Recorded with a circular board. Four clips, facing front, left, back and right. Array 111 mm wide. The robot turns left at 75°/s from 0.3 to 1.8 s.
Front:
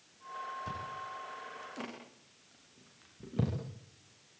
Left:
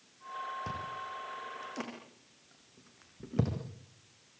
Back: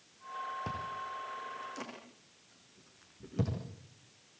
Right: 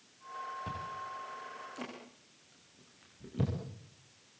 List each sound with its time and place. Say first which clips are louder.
0.7 s chewing: left 1 dB, back 2 dB; 165° left, 9 m; by 3.5 s 80° left, 9 m